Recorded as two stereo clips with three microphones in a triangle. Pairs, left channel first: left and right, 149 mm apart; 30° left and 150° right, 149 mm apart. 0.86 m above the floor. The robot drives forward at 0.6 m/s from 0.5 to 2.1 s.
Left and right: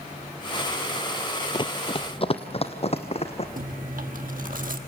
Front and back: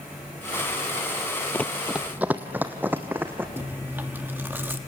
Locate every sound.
1.5 s running footsteps: 95° left, 0.9 m; by 3.5 s 135° left, 2.5 m
3.6 s chewing: 75° right, 1.4 m